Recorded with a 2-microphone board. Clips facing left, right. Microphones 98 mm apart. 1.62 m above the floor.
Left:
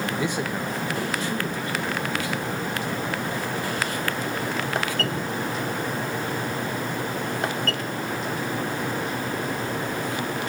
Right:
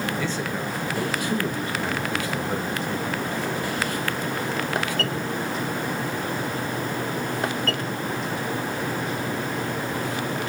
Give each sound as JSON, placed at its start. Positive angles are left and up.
{"t": 0.1, "sound": "a man speaking", "side_deg": 20, "distance_m": 1.8}